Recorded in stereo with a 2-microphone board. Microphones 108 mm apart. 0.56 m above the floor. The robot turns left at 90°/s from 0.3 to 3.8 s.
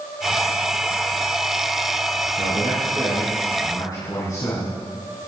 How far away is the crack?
I don't hear a crack.